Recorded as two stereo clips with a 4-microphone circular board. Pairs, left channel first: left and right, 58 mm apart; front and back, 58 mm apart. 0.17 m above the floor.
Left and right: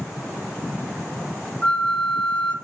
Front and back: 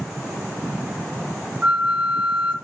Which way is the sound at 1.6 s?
135° left.